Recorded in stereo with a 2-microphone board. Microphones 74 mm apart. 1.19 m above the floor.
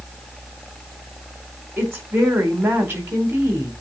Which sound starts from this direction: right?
A woman speaking, at 1.8 s.